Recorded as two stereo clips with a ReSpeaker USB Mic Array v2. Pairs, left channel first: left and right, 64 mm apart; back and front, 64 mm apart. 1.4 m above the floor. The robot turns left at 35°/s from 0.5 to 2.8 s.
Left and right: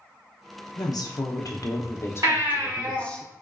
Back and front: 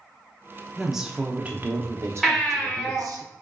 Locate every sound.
0.8 s a woman speaking: 90° left, 0.5 m; by 3.2 s 20° left, 0.5 m
2.2 s a baby crying: 90° right, 1.6 m; by 3.0 s 110° right, 1.6 m